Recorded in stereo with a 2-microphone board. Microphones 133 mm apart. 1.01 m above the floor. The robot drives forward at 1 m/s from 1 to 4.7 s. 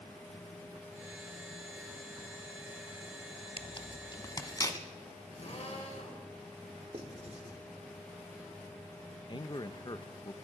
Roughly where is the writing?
Right.